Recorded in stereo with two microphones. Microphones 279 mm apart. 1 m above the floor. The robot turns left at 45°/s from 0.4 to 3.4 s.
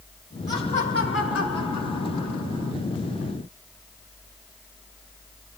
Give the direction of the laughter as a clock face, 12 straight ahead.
6 o'clock.